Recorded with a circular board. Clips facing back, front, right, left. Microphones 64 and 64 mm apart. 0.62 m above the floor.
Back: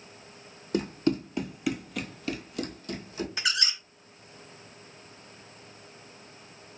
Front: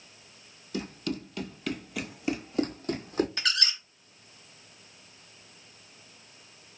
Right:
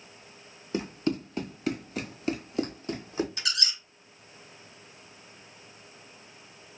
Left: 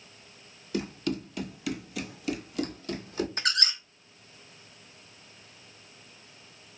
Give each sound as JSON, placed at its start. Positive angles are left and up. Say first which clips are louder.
{"t": 0.7, "sound": "running footsteps", "louder": "back 7 dB, right 2 dB", "azimuth_deg": -145, "distance_m": 1.1}
{"t": 3.4, "sound": "a squeak", "louder": "even, left 4 dB", "azimuth_deg": 105, "distance_m": 0.6}